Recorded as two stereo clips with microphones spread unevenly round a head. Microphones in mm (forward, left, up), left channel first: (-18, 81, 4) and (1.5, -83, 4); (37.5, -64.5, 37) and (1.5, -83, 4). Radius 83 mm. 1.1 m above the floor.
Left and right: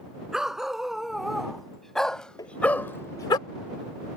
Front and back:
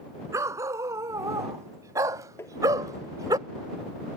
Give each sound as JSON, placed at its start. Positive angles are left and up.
{"t": 0.3, "sound": "a dog barking", "azimuth_deg": -170}
{"t": 2.4, "sound": "tapping", "azimuth_deg": 25}